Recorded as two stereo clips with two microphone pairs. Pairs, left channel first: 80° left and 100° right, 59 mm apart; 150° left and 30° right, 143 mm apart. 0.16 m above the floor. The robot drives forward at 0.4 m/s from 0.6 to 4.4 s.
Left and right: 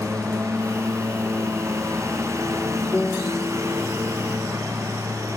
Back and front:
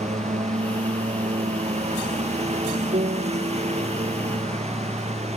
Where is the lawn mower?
65° right; by 5.4 s 70° right.